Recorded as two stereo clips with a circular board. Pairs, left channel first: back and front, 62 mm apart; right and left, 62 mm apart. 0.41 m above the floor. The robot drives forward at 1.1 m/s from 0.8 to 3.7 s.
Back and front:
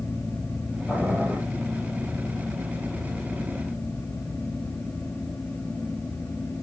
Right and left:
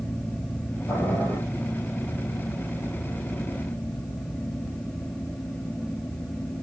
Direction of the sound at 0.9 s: 95° right.